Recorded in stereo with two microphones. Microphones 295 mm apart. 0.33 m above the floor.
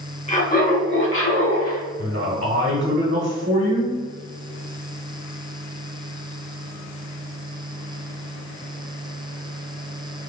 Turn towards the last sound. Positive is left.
turn(degrees=-40)  # may be behind; listen again after turning